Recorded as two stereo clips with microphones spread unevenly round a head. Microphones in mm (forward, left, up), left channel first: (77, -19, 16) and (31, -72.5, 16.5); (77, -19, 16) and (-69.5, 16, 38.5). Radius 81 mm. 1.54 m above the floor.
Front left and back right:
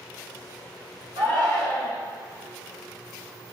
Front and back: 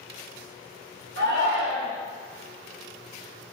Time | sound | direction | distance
1.2 | a shout | 170° left | 0.7 m